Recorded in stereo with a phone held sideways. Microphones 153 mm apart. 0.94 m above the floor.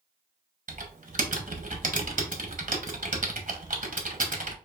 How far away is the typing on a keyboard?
About 0.9 m.